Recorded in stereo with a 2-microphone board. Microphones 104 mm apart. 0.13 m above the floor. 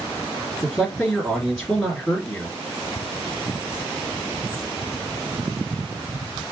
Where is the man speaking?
Centre (ahead or behind), 2 m.